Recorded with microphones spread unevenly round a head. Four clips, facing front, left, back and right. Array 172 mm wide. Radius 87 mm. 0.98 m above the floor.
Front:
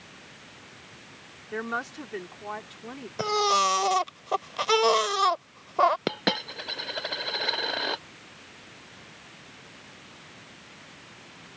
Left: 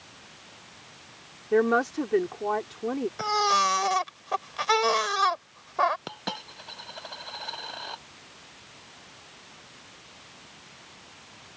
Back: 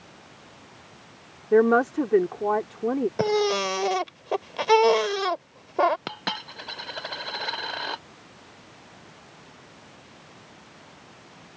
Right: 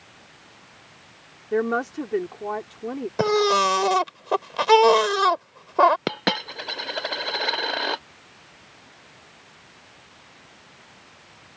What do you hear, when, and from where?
1.5 s a woman speaking: 175° left
3.2 s a baby crying: 125° right
6.1 s a dropped coin: 75° right